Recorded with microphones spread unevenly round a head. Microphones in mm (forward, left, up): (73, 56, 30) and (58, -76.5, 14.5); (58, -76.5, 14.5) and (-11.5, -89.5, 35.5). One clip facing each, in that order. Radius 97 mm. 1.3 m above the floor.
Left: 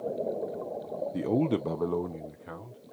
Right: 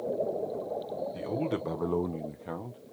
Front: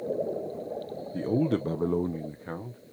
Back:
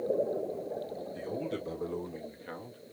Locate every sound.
1.1 s a man speaking: 45° left, 0.8 m; by 2.9 s 55° right, 1.2 m